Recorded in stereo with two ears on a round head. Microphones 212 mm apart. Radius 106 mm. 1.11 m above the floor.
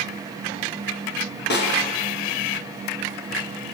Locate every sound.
1.5 s a snare drum: 45° left (ahead or behind), 5 m